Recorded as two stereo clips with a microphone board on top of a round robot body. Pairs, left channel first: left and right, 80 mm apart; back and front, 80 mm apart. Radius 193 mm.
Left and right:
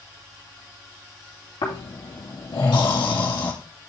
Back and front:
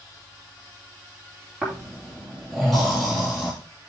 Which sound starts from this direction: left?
Snoring, at 1.6 s.